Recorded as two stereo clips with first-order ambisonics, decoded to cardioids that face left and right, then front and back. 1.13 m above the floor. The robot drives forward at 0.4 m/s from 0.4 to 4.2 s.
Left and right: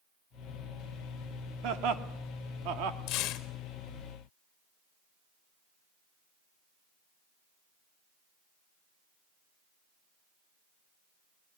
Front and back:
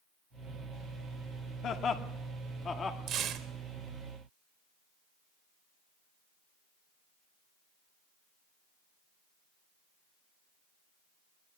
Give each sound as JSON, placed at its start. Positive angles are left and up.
{"t": 1.6, "sound": "laughter", "azimuth_deg": -60, "distance_m": 2.5}
{"t": 3.1, "sound": "tearing paper", "azimuth_deg": 125, "distance_m": 1.6}